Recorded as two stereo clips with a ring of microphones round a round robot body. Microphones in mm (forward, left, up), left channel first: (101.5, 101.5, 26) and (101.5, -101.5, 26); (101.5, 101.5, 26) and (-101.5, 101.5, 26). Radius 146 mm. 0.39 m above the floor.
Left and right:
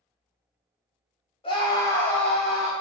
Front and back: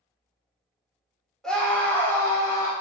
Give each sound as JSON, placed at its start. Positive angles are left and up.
{"t": 1.4, "sound": "a scream", "azimuth_deg": 85, "distance_m": 1.1}